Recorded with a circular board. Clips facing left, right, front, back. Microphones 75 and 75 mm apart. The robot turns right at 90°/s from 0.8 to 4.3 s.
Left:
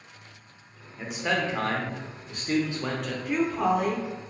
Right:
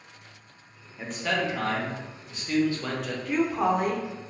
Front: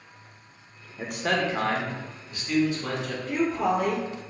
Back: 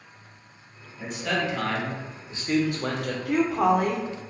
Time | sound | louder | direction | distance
1.0 | a man speaking | left 1 dB, front 2 dB | 5° right | 0.6 m
3.2 | a woman speaking | even, back 4 dB | 170° left | 0.6 m